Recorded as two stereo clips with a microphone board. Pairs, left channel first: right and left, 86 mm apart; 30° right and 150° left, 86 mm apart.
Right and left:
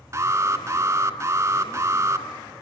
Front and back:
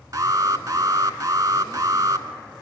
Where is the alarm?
125° left, 1.2 m.